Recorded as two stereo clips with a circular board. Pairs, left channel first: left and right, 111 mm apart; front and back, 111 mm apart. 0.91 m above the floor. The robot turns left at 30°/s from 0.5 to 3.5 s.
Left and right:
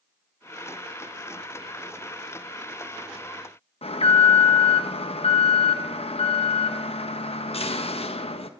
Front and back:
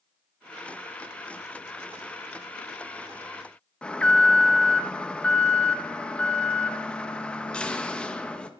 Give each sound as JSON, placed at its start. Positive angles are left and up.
{"t": 3.8, "sound": "an alarm", "azimuth_deg": 80, "distance_m": 0.5}